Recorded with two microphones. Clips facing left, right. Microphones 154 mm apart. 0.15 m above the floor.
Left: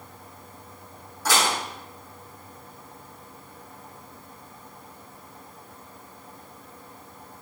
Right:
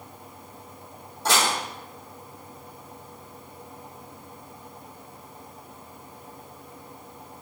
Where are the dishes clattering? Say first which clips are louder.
Even; 25° right (ahead or behind), 3.5 m.